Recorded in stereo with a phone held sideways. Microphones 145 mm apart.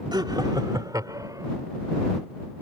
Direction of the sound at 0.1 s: 30° right (ahead or behind).